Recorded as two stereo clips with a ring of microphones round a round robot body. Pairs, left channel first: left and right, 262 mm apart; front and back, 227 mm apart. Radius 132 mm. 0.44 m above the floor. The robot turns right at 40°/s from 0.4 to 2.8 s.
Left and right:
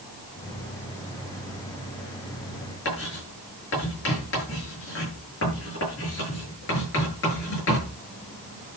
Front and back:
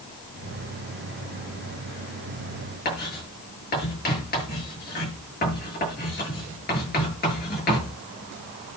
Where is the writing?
45° left, 9.5 m.